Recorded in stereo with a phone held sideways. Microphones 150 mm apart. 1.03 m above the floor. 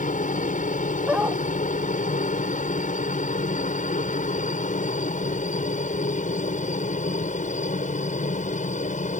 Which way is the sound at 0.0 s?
60° left (ahead or behind).